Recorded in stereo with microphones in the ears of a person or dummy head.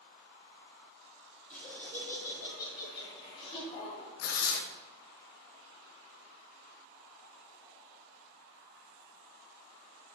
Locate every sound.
1.5 s laughter: centre (ahead or behind), 4 m; by 4.1 s 35° left (ahead or behind), 3.5 m
4.2 s tearing paper: 80° left, 1.0 m